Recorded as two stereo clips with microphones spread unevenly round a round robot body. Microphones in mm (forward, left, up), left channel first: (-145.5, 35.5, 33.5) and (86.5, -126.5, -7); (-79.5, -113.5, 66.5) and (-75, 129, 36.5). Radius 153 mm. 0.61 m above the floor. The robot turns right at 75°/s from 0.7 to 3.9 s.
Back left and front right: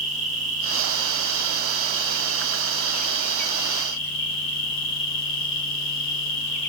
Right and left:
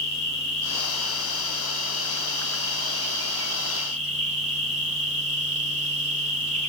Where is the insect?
95° right, 3 m; by 6.7 s 145° left, 3 m.